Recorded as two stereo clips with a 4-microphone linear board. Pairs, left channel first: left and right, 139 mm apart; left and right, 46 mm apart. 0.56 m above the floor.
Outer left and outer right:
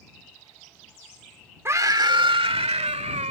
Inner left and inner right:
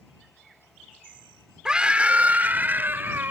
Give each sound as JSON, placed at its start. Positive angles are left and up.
{"t": 1.6, "sound": "a scream", "side_deg": -20}